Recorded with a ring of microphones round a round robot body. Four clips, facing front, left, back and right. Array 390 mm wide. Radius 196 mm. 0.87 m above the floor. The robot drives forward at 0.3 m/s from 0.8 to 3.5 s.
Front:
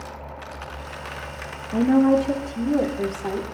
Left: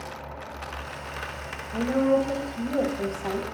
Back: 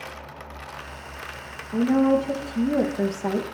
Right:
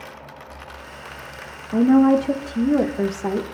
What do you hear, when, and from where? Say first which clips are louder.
1.7 s a woman speaking: right 8 dB, front 2 dB; 75° right, 0.7 m; by 3.5 s 120° right, 0.8 m